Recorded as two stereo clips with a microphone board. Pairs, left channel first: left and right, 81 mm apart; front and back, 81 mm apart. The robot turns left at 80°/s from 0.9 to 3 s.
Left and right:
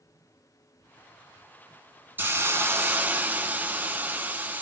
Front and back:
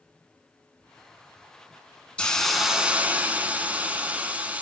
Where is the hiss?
60° right, 1.0 m; by 4.6 s 125° right, 1.0 m.